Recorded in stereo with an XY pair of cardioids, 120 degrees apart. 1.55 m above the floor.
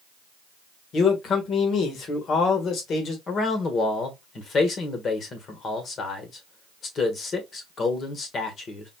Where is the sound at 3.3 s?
40° left, 1.4 m.